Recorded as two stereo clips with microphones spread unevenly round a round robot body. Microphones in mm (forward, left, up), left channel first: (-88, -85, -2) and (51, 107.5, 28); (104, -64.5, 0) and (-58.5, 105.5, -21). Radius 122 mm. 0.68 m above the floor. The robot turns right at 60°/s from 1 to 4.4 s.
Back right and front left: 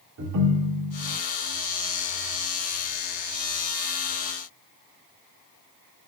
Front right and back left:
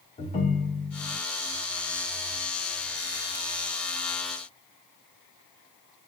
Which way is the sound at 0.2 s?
15° left.